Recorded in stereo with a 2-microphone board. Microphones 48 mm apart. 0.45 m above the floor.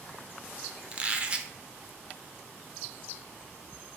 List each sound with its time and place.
0.9 s a squeak: 25° right (ahead or behind), 0.6 m